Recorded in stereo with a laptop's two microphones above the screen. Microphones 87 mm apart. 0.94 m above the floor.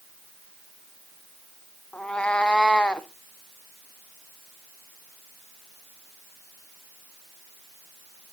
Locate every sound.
1.9 s a cat meowing: 10° left (ahead or behind), 0.5 m